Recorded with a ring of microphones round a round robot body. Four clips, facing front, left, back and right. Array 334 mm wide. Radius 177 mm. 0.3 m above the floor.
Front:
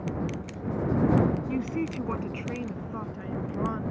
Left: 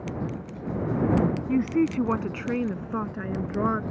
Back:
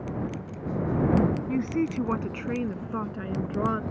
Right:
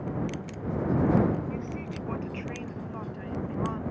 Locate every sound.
1.5 s a woman speaking: 100° left; by 3.8 s 120° left